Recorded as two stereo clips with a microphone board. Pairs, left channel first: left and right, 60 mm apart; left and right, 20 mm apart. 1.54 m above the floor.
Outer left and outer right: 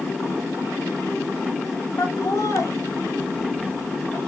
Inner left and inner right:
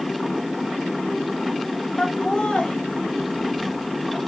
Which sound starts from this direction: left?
Laughter, at 2.0 s.